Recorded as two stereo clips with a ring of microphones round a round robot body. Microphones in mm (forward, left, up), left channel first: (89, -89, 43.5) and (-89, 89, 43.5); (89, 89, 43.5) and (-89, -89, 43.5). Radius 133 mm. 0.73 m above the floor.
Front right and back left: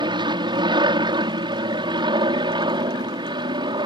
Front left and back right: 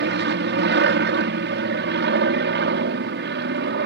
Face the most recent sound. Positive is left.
turn(degrees=-160)